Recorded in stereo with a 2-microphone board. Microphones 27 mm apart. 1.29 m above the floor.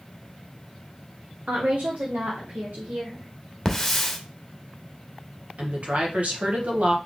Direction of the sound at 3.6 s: 10° left (ahead or behind).